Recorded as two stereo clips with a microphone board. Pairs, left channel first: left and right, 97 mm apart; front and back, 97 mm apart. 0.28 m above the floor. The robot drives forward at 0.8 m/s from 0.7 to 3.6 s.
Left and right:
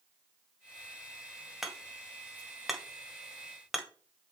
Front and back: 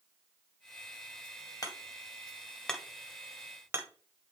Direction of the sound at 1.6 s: 5° right.